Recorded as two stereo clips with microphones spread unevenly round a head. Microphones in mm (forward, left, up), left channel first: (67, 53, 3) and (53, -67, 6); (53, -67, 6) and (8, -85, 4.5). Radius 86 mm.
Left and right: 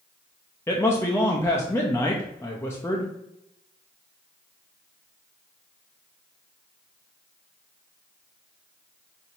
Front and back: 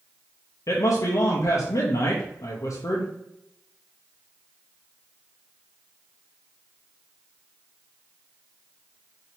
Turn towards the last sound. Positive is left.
turn(degrees=10)